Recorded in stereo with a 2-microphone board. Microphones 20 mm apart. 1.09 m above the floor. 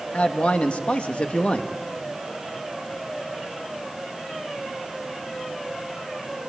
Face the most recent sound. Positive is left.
turn(degrees=65)  # may be behind; listen again after turning